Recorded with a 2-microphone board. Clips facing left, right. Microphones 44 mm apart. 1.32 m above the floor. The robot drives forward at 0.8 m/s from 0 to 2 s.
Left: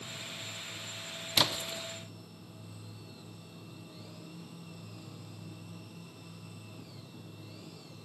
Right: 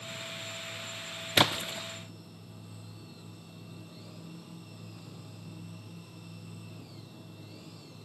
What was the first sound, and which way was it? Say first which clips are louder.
A splash: right 5 dB; 45° right (ahead or behind).